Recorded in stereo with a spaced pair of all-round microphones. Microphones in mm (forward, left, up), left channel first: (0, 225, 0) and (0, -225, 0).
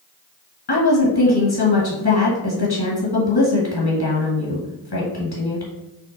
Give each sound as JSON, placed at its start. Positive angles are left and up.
{"t": 0.7, "sound": "a woman speaking", "side_deg": 60, "distance_m": 1.3}